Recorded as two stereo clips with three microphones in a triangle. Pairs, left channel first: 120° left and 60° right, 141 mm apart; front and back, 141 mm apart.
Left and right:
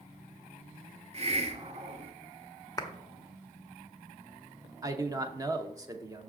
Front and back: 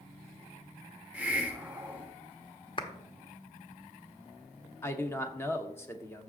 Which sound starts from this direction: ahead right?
A man speaking, at 4.8 s.